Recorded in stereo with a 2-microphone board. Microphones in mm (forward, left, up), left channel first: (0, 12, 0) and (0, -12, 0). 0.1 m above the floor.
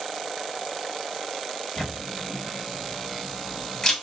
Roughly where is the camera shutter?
Left.